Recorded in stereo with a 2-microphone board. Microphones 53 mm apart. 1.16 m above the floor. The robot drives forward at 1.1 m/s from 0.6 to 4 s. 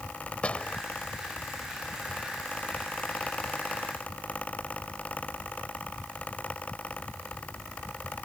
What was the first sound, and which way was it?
A door slam, 25° left (ahead or behind).